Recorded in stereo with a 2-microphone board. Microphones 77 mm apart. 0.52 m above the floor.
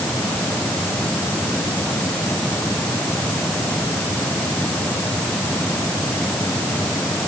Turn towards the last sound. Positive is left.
No sound to turn to.